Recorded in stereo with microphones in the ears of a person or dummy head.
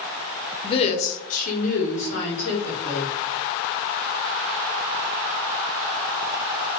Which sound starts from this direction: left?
A woman speaking, at 0.6 s.